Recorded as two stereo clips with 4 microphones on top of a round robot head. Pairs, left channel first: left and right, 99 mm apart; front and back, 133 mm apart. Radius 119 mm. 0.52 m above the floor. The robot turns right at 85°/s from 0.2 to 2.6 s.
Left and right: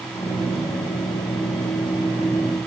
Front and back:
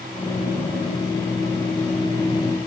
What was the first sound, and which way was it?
Only background noise.